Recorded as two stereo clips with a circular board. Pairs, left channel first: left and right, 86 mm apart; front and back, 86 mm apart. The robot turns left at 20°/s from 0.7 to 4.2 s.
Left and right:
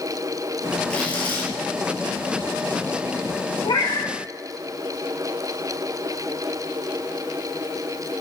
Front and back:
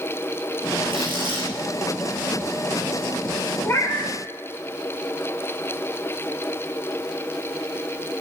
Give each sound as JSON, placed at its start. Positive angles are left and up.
{"t": 0.9, "sound": "tearing paper", "azimuth_deg": 165, "distance_m": 6.0}
{"t": 3.6, "sound": "a cat meowing", "azimuth_deg": 65, "distance_m": 2.0}